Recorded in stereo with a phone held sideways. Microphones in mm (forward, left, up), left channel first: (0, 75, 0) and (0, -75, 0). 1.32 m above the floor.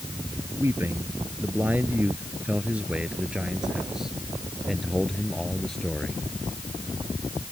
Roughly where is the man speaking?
Centre.